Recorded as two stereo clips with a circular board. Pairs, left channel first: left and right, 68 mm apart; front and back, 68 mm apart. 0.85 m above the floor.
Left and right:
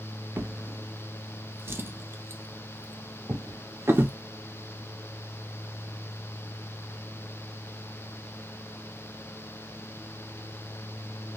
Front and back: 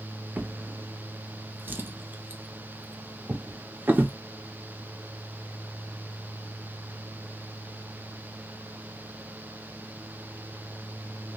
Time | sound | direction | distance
0.4 | a drawer | 130° right | 0.5 m